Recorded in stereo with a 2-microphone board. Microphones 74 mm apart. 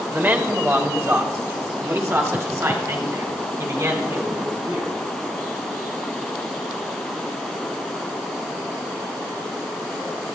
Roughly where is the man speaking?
Right.